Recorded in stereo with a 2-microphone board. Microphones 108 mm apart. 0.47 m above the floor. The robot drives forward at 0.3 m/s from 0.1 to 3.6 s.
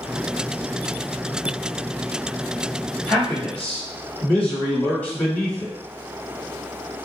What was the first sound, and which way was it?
A man speaking, 15° left (ahead or behind).